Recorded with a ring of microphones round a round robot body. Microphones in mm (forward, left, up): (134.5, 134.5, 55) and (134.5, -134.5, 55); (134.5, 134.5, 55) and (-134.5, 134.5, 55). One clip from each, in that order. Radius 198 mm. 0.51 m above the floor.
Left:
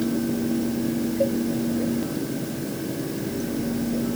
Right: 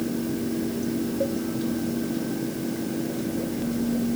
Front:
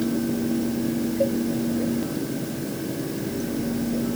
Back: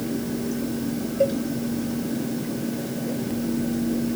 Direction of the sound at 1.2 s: 140° left.